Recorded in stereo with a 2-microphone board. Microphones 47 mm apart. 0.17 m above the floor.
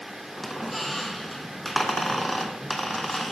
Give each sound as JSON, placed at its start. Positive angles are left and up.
{"t": 0.4, "sound": "a squeak", "side_deg": 0, "distance_m": 0.6}